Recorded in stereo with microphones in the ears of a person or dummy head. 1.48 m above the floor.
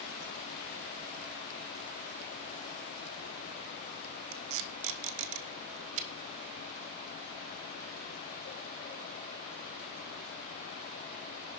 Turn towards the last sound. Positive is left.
turn(degrees=-70)  # may be behind; listen again after turning